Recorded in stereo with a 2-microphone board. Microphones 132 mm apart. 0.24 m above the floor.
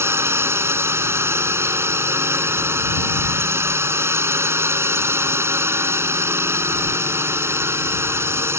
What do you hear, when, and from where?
0.0 s a drone: 20° right (ahead or behind)